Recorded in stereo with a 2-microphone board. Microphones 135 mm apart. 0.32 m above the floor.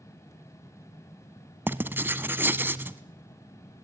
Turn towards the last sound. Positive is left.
turn(degrees=-15)  # may be behind; listen again after turning